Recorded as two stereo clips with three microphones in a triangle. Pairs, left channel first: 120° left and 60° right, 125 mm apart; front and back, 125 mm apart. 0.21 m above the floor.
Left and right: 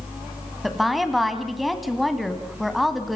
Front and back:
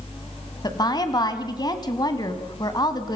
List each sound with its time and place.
0.6 s a woman speaking: 30° left, 1.9 m